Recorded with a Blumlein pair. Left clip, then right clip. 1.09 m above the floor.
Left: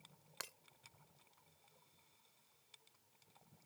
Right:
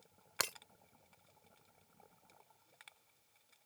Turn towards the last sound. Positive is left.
turn(degrees=-30)